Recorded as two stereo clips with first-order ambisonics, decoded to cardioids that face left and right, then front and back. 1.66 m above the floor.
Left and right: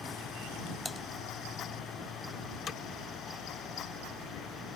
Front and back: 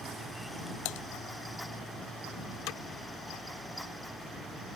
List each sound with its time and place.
0.8 s typing on a keyboard: straight ahead
2.7 s hammering: 30° left